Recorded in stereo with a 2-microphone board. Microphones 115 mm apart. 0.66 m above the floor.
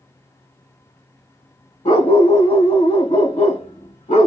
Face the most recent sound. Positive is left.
turn(degrees=80)